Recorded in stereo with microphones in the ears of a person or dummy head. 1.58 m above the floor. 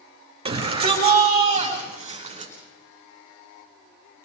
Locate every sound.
0.5 s a shout: 25° right (ahead or behind), 5 m